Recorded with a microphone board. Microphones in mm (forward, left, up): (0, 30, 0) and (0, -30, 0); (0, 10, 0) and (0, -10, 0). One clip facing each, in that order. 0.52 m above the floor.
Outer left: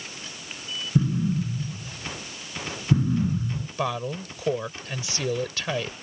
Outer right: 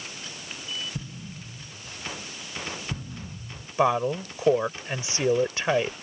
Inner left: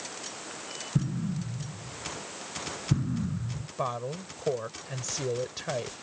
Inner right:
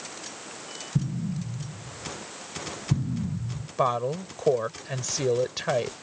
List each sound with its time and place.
0.9 s an explosion: 45° left (ahead or behind)
3.8 s a woman speaking: 25° right (ahead or behind)